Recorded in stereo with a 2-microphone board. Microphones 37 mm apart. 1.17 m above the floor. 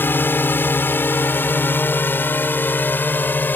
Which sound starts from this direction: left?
A drone, at 0.0 s.